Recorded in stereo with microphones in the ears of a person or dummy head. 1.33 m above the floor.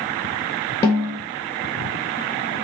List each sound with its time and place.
0.8 s a snare drum: 15° left (ahead or behind), 1.4 m